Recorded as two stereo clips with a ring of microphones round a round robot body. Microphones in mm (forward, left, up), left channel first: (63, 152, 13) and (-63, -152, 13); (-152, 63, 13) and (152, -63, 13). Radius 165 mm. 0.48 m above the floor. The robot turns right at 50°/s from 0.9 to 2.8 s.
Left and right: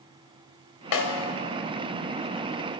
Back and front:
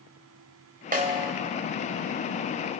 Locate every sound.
0.9 s a snare drum: 40° left, 3 m; by 1.3 s 60° left, 3 m